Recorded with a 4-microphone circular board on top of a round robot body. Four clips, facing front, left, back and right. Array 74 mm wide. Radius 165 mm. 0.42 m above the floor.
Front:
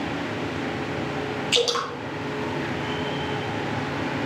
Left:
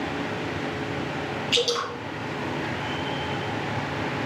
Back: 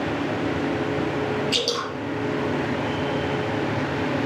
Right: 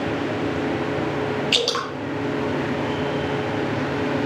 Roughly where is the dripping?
Right.